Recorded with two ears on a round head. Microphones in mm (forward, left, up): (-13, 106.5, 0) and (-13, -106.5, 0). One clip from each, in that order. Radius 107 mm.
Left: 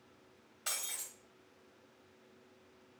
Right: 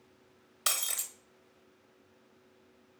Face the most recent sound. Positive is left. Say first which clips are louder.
# right 8 dB
turn(degrees=-55)  # may be behind; listen again after turning